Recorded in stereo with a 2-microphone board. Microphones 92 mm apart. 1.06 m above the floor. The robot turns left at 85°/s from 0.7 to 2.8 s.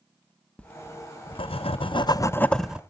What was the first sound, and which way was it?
Writing, 170° left.